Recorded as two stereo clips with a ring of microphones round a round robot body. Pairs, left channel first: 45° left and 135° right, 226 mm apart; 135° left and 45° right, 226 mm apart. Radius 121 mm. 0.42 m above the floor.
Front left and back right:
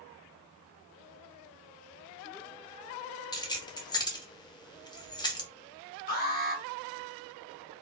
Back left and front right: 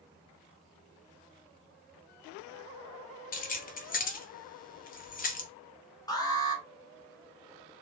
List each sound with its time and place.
3.3 s keys jangling: 105° left, 0.8 m
6.1 s an alarm: 65° left, 1.3 m